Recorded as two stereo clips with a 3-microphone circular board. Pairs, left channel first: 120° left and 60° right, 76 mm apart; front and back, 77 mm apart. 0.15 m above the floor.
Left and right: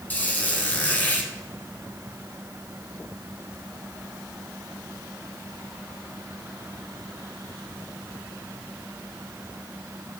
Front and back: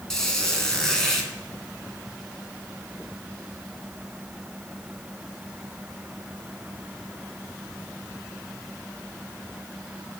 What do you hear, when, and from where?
0.1 s a squeak: 75° left, 1.0 m